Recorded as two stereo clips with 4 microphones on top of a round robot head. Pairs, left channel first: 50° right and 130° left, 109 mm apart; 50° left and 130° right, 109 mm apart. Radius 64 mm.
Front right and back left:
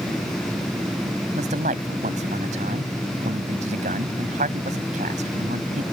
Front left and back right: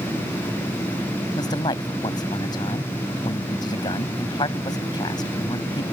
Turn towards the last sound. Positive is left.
turn(degrees=105)